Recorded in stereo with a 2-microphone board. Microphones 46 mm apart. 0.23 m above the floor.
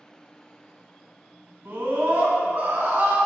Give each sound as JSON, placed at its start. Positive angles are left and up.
{"t": 1.6, "sound": "a scream", "side_deg": -40, "distance_m": 1.7}